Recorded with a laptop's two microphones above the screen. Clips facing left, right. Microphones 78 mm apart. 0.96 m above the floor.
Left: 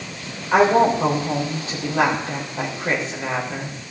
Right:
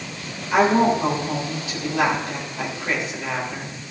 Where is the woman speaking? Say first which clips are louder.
Left 2 dB; 35° left (ahead or behind), 3.5 m.